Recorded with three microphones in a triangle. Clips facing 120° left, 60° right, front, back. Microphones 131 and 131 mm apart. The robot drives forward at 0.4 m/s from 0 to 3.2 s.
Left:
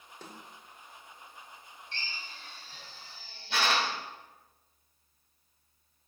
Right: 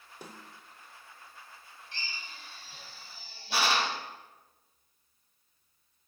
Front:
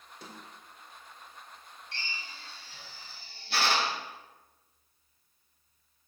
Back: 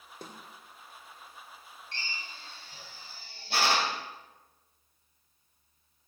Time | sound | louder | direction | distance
0.2 | a snare drum | right 1 dB, back 2 dB | 140° right | 1.4 m
1.9 | a drill | even, even | 135° right | 3 m